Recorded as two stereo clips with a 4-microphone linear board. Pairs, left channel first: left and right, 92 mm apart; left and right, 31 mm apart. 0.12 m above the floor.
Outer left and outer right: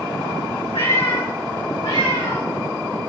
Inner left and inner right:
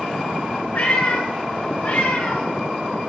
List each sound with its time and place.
0.7 s a cat meowing: 75° left (ahead or behind), 3 m; by 2.5 s 85° left, 4.5 m